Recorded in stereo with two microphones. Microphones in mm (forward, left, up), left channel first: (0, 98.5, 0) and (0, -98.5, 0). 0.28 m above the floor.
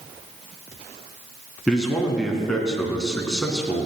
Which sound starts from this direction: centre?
A man speaking, at 1.7 s.